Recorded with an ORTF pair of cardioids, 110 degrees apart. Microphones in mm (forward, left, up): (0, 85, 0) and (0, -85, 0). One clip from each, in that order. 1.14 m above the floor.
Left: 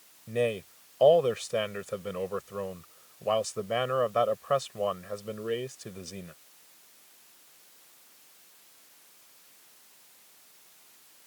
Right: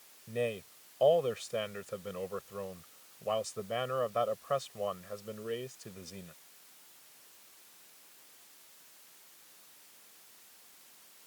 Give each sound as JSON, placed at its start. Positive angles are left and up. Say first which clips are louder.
{"t": 0.3, "sound": "a man speaking", "louder": "left 6 dB", "azimuth_deg": 30}